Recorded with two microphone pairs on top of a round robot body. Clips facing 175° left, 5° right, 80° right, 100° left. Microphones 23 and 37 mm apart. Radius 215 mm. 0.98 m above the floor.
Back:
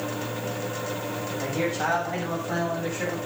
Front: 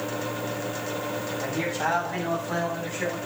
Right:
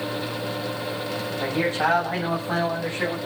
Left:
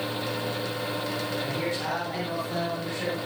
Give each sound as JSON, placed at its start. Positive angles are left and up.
{"t": 1.4, "sound": "a man speaking", "azimuth_deg": -110, "distance_m": 8.0}